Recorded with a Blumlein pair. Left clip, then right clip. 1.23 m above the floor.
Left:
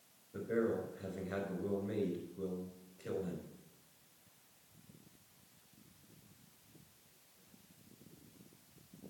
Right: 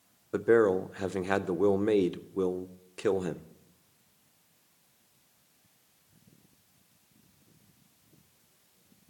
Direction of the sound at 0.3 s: 45° right.